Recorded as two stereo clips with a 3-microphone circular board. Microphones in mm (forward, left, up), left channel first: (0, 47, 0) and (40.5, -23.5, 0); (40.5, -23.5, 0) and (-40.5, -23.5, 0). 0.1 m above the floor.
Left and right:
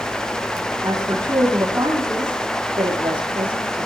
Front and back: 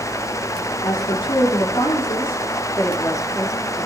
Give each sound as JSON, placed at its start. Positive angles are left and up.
{"t": 0.8, "sound": "a woman speaking", "azimuth_deg": -10, "distance_m": 6.5}
{"t": 2.8, "sound": "a woman speaking", "azimuth_deg": -50, "distance_m": 6.0}